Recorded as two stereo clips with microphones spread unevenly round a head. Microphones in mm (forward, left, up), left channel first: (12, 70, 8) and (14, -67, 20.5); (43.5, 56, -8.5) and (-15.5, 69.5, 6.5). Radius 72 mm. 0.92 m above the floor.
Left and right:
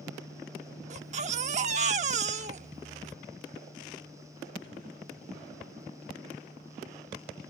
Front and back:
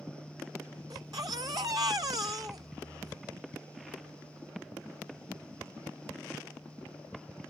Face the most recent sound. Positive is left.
turn(degrees=-135)